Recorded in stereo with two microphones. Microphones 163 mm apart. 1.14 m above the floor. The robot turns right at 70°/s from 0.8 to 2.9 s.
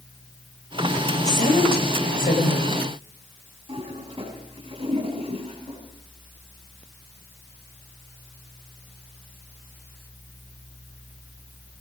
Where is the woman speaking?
50° left, 5 m; by 2.8 s 160° left, 5 m.